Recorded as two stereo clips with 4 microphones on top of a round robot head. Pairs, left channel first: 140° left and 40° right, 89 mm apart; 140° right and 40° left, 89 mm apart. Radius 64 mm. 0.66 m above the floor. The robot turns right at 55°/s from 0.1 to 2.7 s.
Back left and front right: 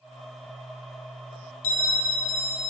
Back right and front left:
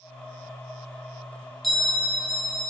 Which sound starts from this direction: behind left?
A bell, at 1.6 s.